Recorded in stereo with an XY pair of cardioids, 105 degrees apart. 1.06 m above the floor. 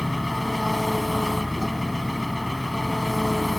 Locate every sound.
0.0 s an engine running: 10° left